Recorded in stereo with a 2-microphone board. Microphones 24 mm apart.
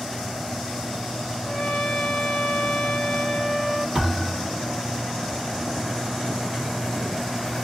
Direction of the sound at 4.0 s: 30° right (ahead or behind).